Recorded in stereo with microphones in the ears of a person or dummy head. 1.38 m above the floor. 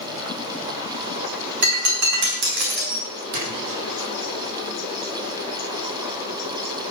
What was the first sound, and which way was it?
Breaking glass, 55° right (ahead or behind).